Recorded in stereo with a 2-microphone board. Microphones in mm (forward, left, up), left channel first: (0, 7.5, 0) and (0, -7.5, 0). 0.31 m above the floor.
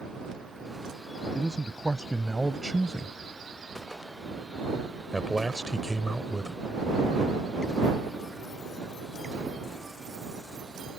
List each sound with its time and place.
1.4 s a man speaking: 50° right (ahead or behind); by 6.6 s 25° left (ahead or behind)